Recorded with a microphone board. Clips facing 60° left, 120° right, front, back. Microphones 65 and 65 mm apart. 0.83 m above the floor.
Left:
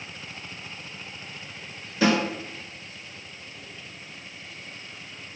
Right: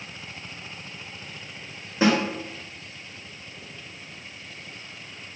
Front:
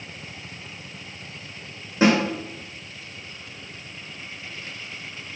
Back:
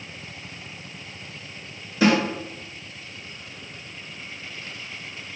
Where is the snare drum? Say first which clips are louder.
Right 1 dB, front 1 dB; 60° right, 3 m.